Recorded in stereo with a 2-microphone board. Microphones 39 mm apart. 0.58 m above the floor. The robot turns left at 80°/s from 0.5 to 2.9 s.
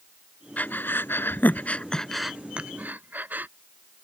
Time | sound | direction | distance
0.6 | breathing | 45° left (ahead or behind) | ?